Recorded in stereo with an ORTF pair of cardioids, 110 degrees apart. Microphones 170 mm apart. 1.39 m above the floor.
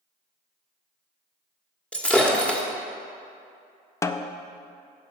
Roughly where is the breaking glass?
Ahead.